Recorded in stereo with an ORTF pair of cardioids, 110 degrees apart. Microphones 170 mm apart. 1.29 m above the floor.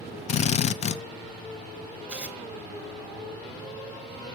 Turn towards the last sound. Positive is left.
turn(degrees=-5)